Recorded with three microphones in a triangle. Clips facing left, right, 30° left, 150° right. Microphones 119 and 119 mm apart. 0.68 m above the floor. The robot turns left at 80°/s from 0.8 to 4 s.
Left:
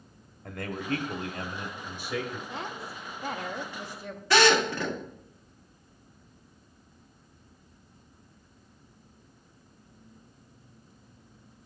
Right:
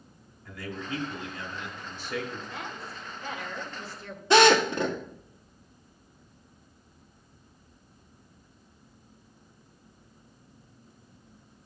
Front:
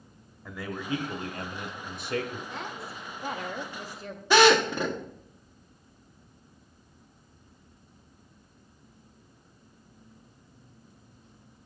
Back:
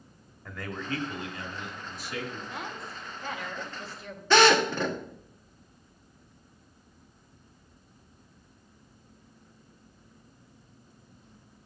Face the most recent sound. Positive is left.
turn(degrees=-40)